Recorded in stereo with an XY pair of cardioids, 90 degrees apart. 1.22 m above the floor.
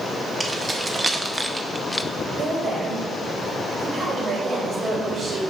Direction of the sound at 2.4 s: 50° right.